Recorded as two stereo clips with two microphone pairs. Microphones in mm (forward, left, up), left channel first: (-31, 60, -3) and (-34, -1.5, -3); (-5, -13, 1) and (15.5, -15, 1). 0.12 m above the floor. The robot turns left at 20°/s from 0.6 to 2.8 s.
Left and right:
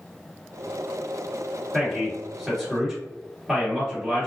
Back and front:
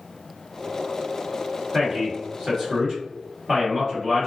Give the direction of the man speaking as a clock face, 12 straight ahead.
12 o'clock.